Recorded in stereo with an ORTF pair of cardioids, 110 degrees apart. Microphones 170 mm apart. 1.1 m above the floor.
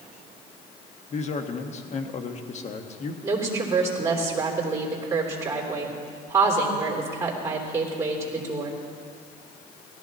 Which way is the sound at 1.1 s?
40° left.